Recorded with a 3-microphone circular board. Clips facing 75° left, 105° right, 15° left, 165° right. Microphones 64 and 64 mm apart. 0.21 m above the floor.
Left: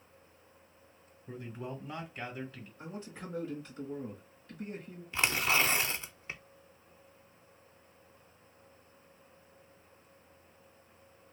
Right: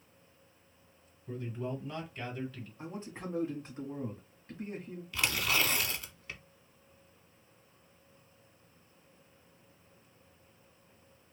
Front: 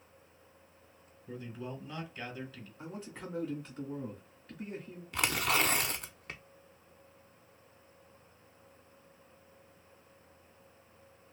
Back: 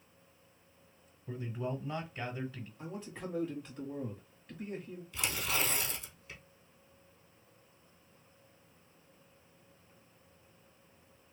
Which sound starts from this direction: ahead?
Tearing paper, at 5.1 s.